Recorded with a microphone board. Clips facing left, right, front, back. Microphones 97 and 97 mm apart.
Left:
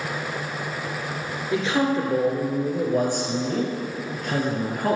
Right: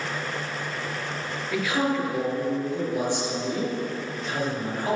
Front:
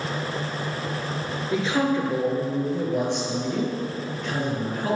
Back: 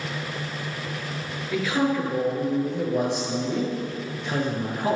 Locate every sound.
1.5 s a man speaking: 40° left, 1.7 m; by 5.0 s 115° left, 3 m